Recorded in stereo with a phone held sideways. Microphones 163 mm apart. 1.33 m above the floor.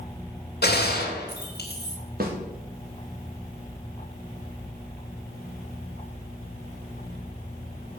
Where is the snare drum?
65° right (ahead or behind), 2.5 m.